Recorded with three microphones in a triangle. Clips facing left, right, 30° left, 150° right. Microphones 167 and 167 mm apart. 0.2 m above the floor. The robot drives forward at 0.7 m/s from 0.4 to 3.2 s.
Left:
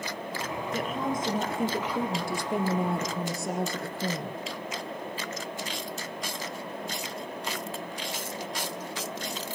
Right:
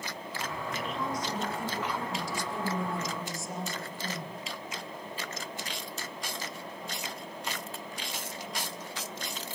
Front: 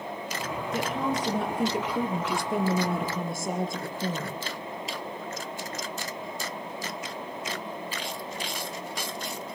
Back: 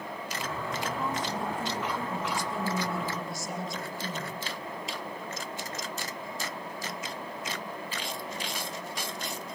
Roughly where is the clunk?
No clunk in this recording.